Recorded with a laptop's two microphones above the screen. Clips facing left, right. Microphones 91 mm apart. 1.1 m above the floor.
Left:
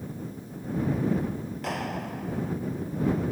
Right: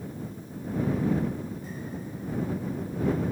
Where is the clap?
90° left.